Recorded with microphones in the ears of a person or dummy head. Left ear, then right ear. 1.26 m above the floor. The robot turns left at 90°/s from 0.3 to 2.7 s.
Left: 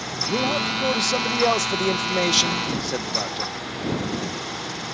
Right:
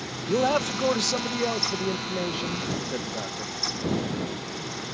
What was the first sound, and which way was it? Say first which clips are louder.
A man speaking: even; 115° right.